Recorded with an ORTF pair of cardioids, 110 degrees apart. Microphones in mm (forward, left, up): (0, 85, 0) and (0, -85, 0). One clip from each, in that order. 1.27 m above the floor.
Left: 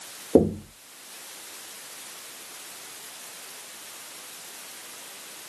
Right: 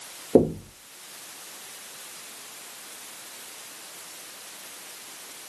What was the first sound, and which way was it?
Knocking, 5° right.